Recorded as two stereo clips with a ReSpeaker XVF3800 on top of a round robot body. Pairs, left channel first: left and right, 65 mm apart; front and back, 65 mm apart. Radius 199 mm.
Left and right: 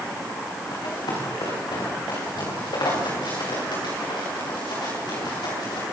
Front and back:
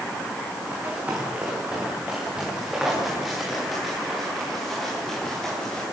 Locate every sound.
0.7 s running footsteps: 110° left, 8.5 m; by 5.8 s 80° left, 9.5 m